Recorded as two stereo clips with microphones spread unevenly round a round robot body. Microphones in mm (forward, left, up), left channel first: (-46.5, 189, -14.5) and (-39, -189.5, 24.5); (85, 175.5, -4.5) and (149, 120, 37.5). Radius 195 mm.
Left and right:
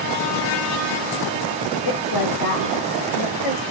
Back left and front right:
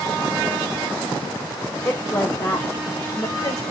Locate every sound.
1.9 s a woman speaking: 85° left, 1.7 m; by 3.6 s 110° left, 2 m